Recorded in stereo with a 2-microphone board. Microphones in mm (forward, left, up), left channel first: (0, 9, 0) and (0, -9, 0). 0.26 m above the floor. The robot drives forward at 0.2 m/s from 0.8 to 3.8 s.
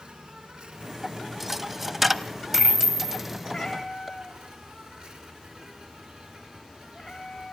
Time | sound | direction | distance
0.0 | an insect | 70° right (ahead or behind) | 1.9 m
1.4 | a dropped coin | 15° right (ahead or behind) | 0.8 m
3.5 | a cat meowing | 25° left (ahead or behind) | 4.5 m